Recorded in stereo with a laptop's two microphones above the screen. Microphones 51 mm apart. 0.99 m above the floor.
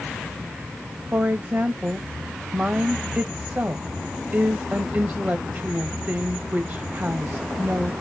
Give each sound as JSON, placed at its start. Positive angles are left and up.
{"t": 1.1, "sound": "a woman speaking", "side_deg": -35, "distance_m": 1.0}